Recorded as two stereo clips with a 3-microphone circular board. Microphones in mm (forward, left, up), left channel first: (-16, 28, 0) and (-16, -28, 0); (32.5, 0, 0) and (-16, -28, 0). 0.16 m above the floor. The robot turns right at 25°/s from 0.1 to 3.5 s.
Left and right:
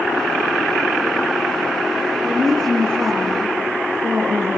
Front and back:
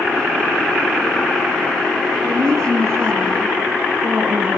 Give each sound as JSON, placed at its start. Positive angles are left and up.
{"t": 2.2, "sound": "a woman speaking", "azimuth_deg": -140, "distance_m": 2.5}